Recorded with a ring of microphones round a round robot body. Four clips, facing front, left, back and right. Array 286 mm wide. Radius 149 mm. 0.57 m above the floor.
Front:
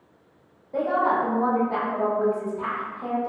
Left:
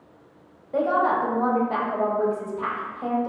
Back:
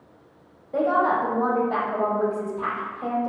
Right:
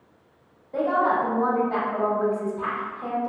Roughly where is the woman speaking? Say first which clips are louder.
Even, back 1 dB; behind left.